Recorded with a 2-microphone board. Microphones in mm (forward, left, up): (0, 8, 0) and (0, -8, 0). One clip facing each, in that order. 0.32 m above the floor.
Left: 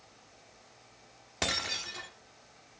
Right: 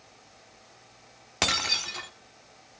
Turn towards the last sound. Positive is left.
turn(degrees=-40)  # may be behind; listen again after turning